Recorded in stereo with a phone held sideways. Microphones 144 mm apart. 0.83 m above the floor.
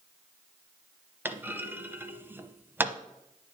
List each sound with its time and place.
1.2 s a clunk: 15° right (ahead or behind), 0.8 m